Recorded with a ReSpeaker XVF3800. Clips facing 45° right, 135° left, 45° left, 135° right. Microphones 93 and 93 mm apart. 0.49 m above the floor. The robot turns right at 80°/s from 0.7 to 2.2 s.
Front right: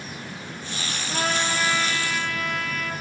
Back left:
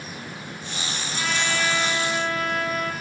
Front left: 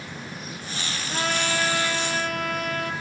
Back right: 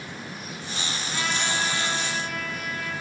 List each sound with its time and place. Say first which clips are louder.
1.1 s a trumpet: front right 2 dB, front left 3 dB; 10° right, 3 m; by 2.9 s 80° left, 3 m